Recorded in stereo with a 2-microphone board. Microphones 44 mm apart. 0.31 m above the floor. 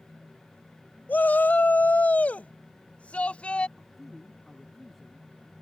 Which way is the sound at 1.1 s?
40° left (ahead or behind).